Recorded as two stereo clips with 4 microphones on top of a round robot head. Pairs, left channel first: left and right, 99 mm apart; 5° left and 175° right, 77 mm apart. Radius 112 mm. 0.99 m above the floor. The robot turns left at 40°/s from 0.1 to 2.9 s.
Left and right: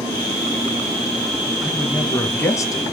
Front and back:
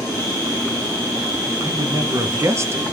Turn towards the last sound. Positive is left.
turn(degrees=130)